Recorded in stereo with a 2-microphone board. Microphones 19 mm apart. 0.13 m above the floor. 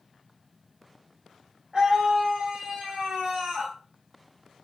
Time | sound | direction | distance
1.7 | a scream | 60° right (ahead or behind) | 6.5 m